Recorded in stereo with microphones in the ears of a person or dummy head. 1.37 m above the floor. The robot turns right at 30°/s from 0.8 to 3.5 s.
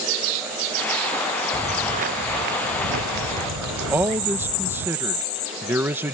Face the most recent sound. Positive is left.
turn(degrees=-10)  # may be behind; listen again after turning